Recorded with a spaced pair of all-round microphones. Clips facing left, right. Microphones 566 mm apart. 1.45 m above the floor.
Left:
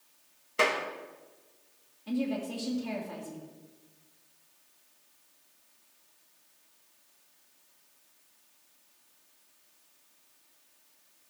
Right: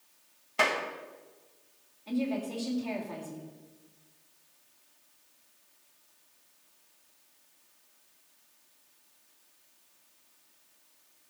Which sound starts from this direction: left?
A woman speaking, at 2.1 s.